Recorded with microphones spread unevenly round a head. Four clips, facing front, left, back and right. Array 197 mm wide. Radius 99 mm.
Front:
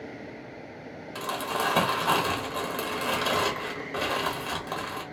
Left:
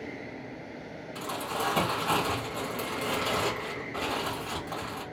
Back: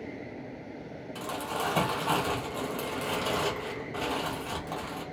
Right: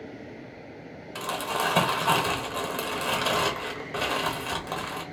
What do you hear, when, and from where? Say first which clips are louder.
1.1 s crumpling: right 4 dB, front 4 dB; 85° right, 1.2 m